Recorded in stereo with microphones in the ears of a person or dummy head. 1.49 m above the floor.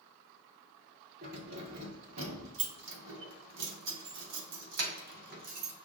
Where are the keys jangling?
50° right (ahead or behind), 2 m; by 5.7 s 40° right (ahead or behind), 1.5 m.